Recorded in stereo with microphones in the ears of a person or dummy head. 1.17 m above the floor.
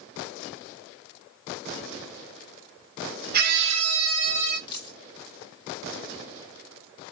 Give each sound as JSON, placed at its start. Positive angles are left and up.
{"t": 3.3, "sound": "a scream", "side_deg": -50, "distance_m": 1.3}
{"t": 4.7, "sound": "a dropped coin", "side_deg": 25, "distance_m": 1.8}